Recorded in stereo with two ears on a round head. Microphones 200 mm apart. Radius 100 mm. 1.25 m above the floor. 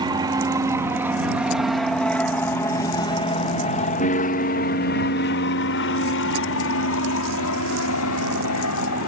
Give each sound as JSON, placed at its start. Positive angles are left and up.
{"t": 0.0, "sound": "an aircraft", "side_deg": -20}